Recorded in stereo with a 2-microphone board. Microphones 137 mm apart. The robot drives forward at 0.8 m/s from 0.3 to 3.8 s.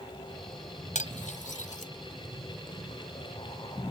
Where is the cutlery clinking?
70° left (ahead or behind); by 1.9 s 75° left (ahead or behind).